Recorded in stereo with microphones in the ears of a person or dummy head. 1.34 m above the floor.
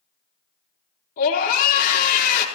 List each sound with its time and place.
1.2 s a scream: 50° left (ahead or behind), 4.5 m